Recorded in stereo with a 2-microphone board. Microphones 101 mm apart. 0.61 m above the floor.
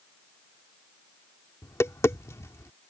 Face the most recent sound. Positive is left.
turn(degrees=30)  # may be behind; listen again after turning